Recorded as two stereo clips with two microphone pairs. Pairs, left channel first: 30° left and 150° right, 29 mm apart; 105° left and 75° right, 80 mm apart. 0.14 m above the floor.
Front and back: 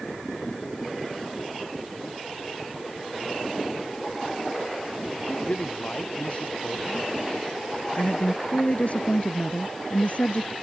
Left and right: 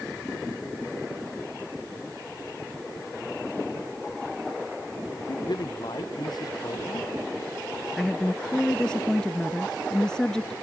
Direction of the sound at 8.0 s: 25° left.